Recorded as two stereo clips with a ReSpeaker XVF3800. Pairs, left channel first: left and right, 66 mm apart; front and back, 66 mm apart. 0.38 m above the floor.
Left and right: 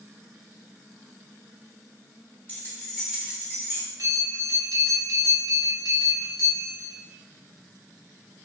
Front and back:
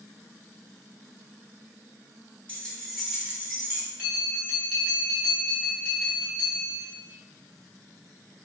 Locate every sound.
2.5 s keys jangling: 55° left, 0.7 m; by 3.9 s 130° right, 0.9 m
4.0 s a bell: 120° right, 0.9 m